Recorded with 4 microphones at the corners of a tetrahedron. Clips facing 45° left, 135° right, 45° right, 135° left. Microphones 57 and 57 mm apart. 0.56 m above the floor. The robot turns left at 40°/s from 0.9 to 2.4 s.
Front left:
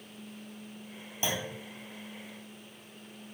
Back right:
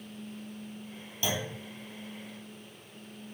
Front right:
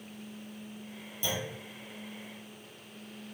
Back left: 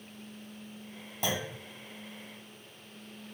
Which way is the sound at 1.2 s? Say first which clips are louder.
Back right 1 dB, back left 2 dB; 110° left.